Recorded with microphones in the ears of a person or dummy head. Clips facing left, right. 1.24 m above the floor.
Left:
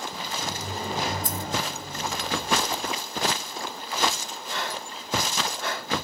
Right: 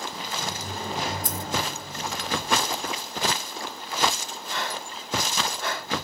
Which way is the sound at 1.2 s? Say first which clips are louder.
Left 1 dB; 50° right (ahead or behind).